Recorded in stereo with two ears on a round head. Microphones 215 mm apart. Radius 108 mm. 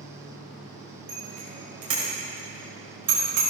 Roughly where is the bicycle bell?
Right.